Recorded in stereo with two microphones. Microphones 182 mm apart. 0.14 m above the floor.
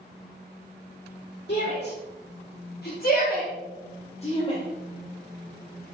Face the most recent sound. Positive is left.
turn(degrees=30)  # may be behind; listen again after turning